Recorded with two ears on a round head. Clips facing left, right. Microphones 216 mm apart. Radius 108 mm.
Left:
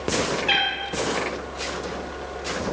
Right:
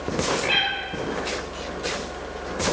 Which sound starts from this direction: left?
A cat meowing, at 0.5 s.